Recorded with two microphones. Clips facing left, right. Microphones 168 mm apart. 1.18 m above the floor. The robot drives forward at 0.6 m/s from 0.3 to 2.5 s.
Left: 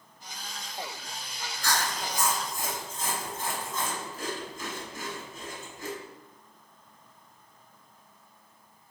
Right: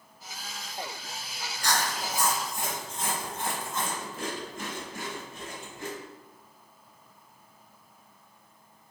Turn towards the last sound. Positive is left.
turn(degrees=-60)  # may be behind; listen again after turning